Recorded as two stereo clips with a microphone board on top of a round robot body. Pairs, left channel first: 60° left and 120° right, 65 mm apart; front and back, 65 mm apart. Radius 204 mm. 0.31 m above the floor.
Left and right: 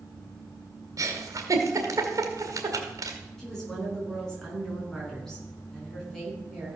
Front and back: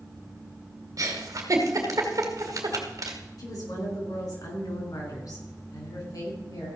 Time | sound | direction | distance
1.0 | a giggle | 150° right | 2.0 m
3.4 | a woman speaking | 25° right | 5 m